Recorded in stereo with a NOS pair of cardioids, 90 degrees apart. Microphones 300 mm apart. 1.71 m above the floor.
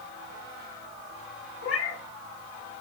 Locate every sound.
1.6 s a cat meowing: 50° left, 5 m